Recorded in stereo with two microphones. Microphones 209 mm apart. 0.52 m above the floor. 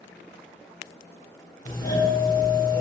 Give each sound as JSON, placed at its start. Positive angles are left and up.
{"t": 1.6, "sound": "a doorbell", "side_deg": 15, "distance_m": 2.0}